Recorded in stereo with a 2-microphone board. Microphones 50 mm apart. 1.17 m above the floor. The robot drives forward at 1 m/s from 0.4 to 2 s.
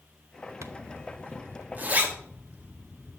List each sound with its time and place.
0.6 s a zipper: 75° right (ahead or behind), 0.9 m; by 3.2 s 30° right (ahead or behind), 1.8 m